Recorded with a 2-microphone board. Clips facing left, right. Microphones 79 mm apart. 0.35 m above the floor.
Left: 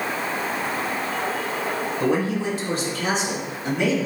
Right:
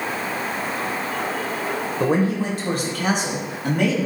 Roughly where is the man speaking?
Right.